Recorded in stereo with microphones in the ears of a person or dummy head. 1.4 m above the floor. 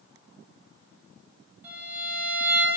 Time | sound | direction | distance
1.6 | a violin | 10° right (ahead or behind) | 1.8 m